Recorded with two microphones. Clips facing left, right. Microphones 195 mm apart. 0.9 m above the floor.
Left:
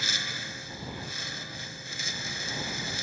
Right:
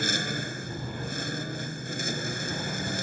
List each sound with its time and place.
0.0 s a lawn mower: 55° right (ahead or behind)